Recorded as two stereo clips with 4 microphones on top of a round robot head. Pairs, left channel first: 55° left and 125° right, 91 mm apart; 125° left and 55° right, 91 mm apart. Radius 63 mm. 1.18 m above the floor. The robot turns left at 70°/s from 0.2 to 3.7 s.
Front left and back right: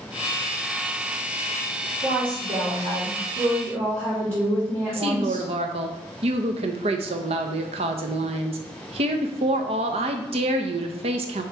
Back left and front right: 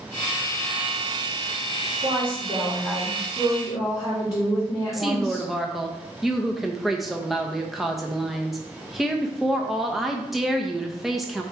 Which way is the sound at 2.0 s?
65° right.